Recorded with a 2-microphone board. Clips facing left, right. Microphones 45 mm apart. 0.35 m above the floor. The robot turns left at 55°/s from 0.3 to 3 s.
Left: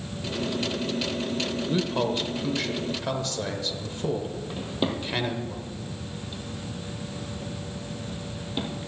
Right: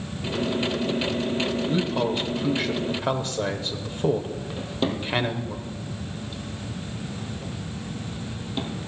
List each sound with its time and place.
1.7 s a man speaking: 10° left (ahead or behind), 0.9 m; by 5.6 s 25° right (ahead or behind), 0.9 m
4.6 s a drawer: 5° left (ahead or behind), 2.5 m